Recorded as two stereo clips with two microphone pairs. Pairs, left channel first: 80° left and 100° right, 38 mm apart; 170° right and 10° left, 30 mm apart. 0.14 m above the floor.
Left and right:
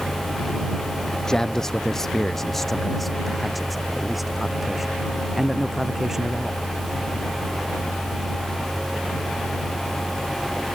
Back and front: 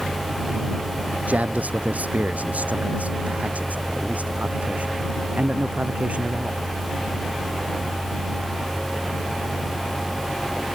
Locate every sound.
1.1 s a man speaking: 10° left; by 6.6 s 20° right